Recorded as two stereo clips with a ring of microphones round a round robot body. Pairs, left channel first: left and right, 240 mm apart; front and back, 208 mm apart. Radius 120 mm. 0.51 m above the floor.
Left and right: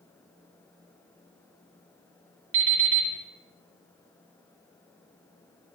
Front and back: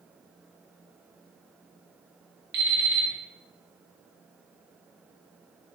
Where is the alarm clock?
130° right, 0.9 m.